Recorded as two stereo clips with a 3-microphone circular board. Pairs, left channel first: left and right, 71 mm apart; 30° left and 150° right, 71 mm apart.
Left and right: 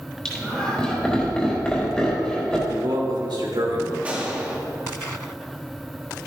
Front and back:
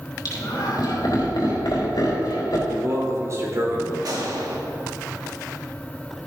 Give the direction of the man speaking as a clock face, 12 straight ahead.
3 o'clock.